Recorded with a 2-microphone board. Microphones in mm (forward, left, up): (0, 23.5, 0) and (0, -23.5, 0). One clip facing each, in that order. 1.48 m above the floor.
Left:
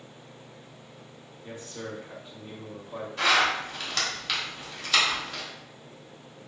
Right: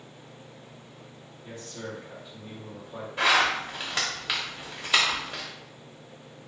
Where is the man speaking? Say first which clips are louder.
Even; 15° left (ahead or behind), 0.7 m; by 3.1 s 40° left (ahead or behind), 1.5 m.